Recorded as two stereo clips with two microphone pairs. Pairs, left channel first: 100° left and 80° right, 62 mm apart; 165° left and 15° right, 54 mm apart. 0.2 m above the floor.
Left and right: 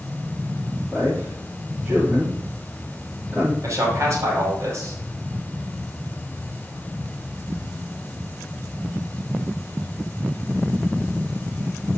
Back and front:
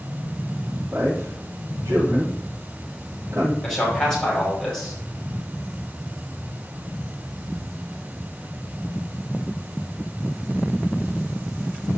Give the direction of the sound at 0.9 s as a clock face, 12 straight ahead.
12 o'clock.